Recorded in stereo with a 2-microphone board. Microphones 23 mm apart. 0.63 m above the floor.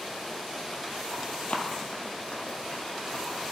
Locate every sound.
1.5 s running footsteps: 60° left (ahead or behind), 1.2 m